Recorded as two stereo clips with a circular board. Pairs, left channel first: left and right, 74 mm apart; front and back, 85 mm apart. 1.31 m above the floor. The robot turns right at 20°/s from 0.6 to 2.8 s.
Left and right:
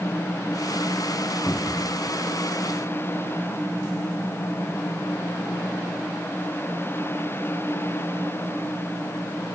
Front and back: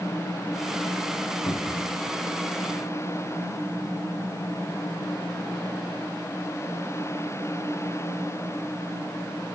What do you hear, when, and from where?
1.5 s a cupboard door: 30° left, 0.9 m; by 2.0 s 40° left, 0.9 m